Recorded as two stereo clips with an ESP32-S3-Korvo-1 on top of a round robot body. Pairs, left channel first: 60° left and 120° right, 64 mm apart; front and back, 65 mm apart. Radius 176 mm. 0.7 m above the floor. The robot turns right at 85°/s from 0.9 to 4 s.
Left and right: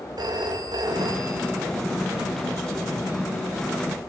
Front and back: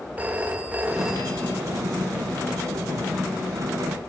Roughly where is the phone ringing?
Right.